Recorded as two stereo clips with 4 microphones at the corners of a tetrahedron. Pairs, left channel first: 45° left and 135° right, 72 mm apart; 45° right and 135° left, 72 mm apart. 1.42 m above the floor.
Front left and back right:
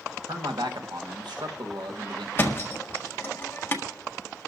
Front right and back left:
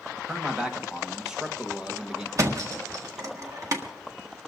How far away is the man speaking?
About 1.4 m.